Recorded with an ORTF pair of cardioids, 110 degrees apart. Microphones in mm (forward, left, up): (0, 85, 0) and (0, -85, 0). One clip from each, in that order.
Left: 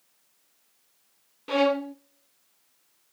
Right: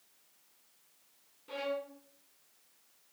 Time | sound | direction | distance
1.5 | a violin | 70° left | 0.6 m